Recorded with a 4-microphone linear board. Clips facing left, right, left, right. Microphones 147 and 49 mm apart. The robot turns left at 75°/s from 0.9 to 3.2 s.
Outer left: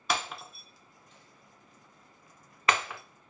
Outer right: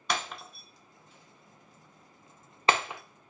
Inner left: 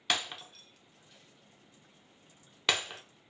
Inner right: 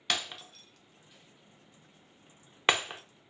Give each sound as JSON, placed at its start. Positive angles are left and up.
{"t": 0.1, "sound": "breaking glass", "side_deg": 5, "distance_m": 0.7}